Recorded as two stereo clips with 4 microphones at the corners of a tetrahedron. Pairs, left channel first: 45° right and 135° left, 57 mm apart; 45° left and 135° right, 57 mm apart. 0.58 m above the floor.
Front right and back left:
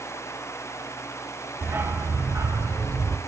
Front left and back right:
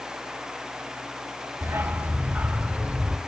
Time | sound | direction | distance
1.6 | a dog barking | 175° right | 1.0 m